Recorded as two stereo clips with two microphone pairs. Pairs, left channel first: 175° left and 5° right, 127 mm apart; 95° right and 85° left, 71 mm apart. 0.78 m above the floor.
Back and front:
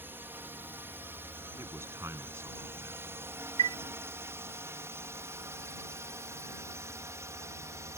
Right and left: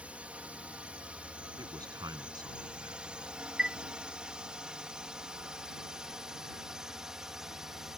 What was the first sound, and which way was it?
A drone, 40° left.